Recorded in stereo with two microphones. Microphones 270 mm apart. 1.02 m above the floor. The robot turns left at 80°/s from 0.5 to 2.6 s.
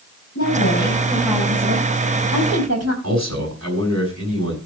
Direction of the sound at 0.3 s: 60° left.